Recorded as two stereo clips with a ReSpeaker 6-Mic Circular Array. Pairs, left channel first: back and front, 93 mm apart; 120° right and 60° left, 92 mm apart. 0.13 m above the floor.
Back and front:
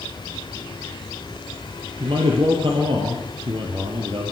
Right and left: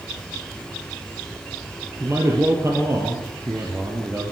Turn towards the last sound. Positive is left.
turn(degrees=0)